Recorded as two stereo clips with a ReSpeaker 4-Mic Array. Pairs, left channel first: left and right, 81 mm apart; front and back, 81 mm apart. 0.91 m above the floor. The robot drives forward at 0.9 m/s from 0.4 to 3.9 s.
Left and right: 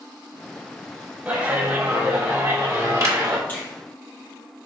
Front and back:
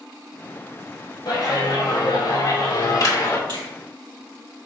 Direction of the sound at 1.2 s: 20° right.